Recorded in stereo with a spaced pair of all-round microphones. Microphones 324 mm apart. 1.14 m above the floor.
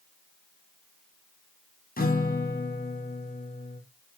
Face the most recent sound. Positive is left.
turn(degrees=30)  # may be behind; listen again after turning